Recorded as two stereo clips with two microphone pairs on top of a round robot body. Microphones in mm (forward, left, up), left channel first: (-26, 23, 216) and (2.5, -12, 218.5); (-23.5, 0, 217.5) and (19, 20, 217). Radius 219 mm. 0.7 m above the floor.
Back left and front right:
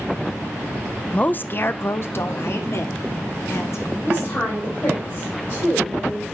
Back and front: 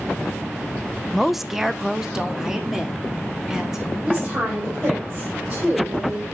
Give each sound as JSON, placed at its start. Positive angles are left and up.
{"t": 1.1, "sound": "a woman speaking", "azimuth_deg": 115, "distance_m": 0.6}
{"t": 4.0, "sound": "a woman speaking", "azimuth_deg": 75, "distance_m": 3.5}